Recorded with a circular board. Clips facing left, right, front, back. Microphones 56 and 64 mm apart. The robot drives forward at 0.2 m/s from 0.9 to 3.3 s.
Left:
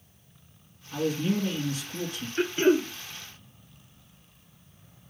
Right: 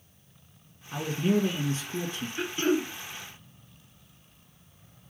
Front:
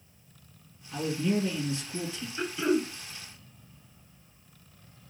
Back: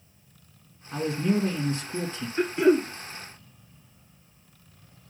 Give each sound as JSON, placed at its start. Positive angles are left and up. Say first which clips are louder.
{"t": 0.9, "sound": "a man speaking", "louder": "right 1 dB, back 3 dB", "azimuth_deg": -140, "distance_m": 1.9}
{"t": 2.4, "sound": "throat clearing", "louder": "left 5 dB, back 7 dB", "azimuth_deg": 145, "distance_m": 0.9}